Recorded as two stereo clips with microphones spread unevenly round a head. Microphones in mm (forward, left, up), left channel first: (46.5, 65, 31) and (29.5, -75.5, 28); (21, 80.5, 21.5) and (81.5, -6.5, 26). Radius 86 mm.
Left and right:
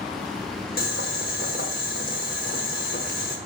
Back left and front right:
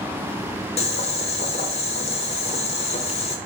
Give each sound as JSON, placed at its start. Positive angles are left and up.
{"t": 0.8, "sound": "boiling", "azimuth_deg": 115, "distance_m": 1.2}